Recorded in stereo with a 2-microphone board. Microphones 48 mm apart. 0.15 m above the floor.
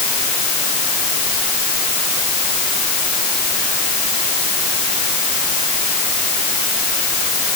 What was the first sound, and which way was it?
Only background noise.